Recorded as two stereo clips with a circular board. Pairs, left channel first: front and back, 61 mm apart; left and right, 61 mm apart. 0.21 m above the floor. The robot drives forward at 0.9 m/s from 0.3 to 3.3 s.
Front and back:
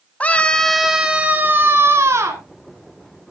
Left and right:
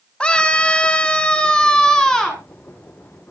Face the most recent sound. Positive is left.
turn(degrees=170)